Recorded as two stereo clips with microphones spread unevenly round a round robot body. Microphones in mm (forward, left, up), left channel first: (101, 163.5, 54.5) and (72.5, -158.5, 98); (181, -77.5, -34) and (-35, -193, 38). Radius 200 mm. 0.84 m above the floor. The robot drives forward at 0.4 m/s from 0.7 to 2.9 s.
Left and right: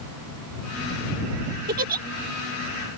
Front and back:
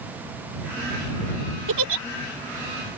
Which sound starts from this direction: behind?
A giggle, at 1.7 s.